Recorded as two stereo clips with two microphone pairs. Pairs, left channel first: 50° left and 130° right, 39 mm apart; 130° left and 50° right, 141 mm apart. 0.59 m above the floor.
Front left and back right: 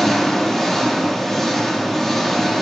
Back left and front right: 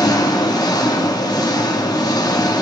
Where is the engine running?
130° left, 1.0 m.